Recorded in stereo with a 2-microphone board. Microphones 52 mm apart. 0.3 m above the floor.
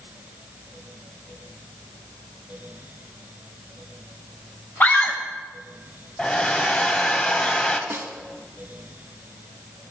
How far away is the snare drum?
About 1.2 m.